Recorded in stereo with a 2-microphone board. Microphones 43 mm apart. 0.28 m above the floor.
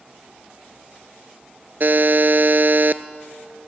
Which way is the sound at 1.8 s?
50° right (ahead or behind).